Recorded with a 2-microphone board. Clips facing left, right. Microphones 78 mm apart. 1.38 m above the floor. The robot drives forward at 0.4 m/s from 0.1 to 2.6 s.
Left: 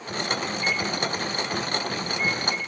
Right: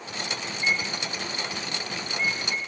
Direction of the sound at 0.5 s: 35° right (ahead or behind).